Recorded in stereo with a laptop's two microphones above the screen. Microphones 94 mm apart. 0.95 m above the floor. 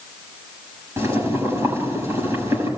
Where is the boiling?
30° right (ahead or behind), 6.5 m.